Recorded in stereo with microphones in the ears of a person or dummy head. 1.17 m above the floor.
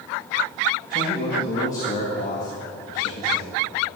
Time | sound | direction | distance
0.9 | a man speaking | 40° left (ahead or behind) | 1.6 m